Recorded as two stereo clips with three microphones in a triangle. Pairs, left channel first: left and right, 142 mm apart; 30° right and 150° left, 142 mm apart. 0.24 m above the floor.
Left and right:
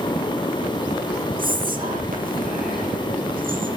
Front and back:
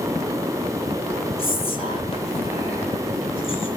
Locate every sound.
1.4 s whispering: 80° right, 5.5 m